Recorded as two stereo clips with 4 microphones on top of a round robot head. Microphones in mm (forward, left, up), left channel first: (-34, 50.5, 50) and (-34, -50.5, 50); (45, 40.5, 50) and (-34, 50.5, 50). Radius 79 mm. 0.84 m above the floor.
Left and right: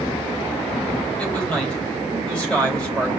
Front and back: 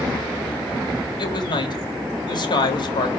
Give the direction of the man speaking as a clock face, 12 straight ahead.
12 o'clock.